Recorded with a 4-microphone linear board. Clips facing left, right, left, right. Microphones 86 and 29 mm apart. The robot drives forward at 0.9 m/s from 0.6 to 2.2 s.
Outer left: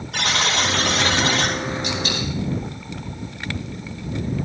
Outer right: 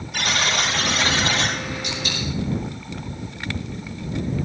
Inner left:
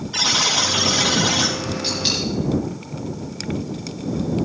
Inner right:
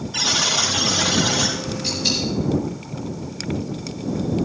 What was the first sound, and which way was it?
A buzzer, 85° left.